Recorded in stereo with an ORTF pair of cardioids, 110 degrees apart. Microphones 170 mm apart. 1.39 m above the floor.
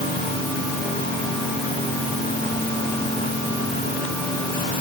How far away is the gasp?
I don't hear a gasp.